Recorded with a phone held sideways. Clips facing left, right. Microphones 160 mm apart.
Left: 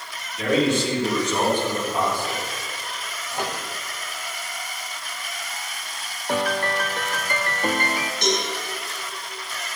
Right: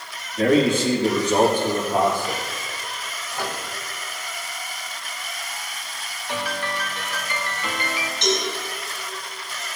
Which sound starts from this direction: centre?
A microwave, at 3.3 s.